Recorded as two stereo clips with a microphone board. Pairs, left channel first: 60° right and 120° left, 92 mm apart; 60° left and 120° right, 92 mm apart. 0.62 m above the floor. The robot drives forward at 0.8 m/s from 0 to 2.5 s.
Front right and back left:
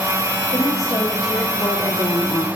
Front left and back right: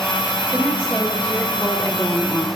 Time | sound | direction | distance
0.5 | a woman speaking | 10° right | 2.5 m